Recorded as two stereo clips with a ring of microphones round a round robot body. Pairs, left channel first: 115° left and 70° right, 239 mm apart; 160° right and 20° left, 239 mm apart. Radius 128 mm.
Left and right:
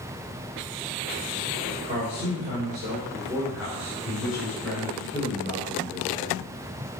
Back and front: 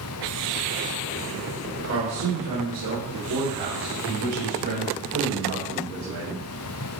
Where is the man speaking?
5° right, 3 m; by 6.4 s 35° left, 6.5 m.